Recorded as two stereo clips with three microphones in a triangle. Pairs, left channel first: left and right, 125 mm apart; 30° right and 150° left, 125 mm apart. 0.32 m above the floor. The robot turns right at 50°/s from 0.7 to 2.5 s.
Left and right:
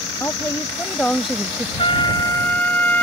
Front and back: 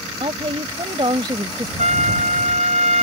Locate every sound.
0.2 s a woman speaking: 150° left; by 1.7 s 160° right
1.8 s a trumpet: 130° left; by 3.0 s 165° left